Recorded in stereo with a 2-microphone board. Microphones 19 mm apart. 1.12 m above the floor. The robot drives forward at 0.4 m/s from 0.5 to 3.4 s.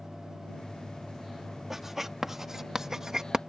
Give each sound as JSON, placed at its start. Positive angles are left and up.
{"t": 1.7, "sound": "writing", "side_deg": -20}